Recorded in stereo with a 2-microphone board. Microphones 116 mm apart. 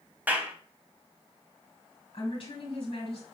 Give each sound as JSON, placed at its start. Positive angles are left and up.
{"t": 0.3, "sound": "a clap", "side_deg": -15, "distance_m": 0.8}
{"t": 2.1, "sound": "a woman speaking", "side_deg": 50, "distance_m": 2.0}